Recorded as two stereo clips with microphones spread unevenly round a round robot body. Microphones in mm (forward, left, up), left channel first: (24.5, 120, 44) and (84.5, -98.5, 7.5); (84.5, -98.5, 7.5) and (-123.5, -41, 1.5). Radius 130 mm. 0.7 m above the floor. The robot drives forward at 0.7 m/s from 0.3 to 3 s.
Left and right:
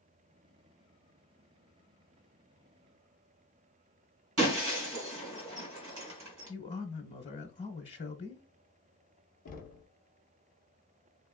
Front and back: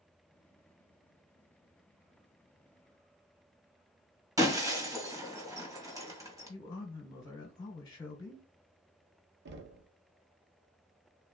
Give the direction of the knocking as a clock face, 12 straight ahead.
7 o'clock.